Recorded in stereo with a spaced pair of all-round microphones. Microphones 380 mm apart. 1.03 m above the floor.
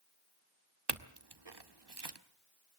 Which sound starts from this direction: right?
A clink, at 0.9 s.